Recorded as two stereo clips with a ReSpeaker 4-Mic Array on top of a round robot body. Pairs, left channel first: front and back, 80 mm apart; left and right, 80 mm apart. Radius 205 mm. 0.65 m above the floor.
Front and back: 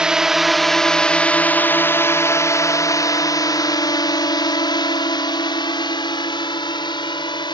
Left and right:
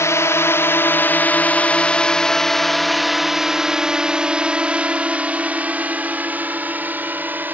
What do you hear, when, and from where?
0.0 s a drone: 105° left; by 7.5 s 20° right